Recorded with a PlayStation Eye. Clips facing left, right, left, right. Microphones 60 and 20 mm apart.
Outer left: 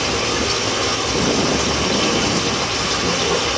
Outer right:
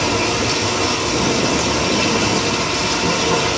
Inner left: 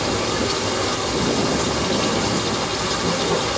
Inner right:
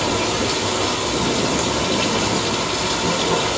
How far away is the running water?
About 7.5 m.